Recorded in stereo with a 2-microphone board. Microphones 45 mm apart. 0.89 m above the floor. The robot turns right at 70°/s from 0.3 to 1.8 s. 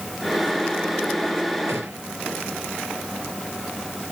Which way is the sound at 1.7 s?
65° right (ahead or behind).